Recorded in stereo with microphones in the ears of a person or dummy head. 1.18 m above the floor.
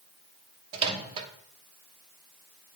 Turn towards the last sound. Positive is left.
turn(degrees=-30)  # may be behind; listen again after turning